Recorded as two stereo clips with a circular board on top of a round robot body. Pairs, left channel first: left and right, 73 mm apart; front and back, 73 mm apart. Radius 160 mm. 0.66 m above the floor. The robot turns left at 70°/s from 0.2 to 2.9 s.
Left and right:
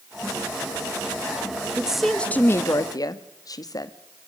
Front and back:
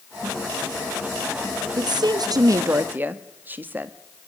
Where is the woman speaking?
160° right, 1.1 m; by 3.9 s 120° left, 1.1 m.